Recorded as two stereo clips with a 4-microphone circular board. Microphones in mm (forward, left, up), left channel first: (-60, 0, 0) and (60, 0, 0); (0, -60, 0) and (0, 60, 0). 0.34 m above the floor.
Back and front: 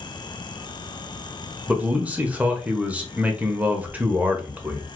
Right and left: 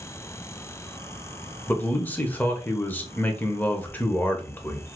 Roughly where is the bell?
I don't hear a bell.